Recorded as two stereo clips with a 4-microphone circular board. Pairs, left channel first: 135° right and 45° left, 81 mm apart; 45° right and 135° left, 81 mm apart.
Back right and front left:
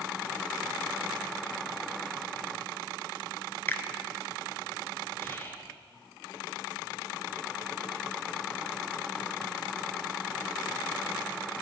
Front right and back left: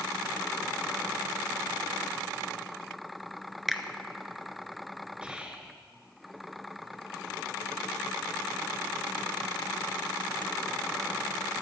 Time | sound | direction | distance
3.7 | a finger snap | 140° right | 0.9 m
5.2 | whispering | 160° right | 1.2 m